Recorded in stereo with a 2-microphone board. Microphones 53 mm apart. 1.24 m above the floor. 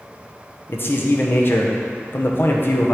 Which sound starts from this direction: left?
A man speaking, at 0.7 s.